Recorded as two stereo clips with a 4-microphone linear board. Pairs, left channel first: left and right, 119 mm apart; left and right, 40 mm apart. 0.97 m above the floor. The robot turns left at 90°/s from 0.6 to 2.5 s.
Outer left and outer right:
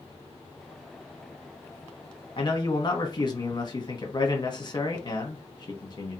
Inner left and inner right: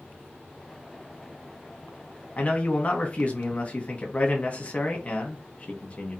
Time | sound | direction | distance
2.4 | a man speaking | 45° left (ahead or behind) | 0.9 m